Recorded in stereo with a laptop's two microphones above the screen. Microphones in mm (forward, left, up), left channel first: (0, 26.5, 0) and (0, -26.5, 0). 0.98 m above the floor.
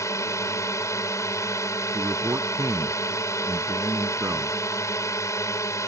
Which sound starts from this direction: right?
A man speaking, at 1.9 s.